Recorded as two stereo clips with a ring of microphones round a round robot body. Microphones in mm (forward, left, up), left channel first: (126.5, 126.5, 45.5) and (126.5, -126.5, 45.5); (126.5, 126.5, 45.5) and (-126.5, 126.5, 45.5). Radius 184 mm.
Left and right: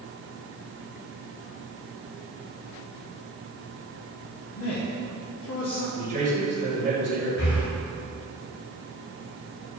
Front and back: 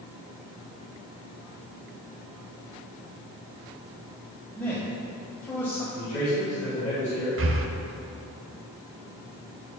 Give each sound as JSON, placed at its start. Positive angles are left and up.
{"t": 4.6, "sound": "a man speaking", "azimuth_deg": 80, "distance_m": 1.6}
{"t": 6.0, "sound": "a man speaking", "azimuth_deg": -80, "distance_m": 1.9}
{"t": 7.4, "sound": "breathing", "azimuth_deg": 145, "distance_m": 0.7}